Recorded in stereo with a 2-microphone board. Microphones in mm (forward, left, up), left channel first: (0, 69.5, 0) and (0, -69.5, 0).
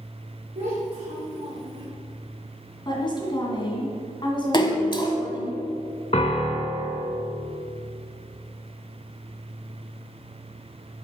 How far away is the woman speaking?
About 1.9 m.